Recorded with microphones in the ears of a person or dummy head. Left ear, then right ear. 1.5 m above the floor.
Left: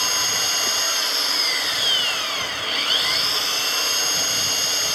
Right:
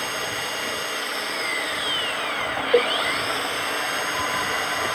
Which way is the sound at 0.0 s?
30° left (ahead or behind).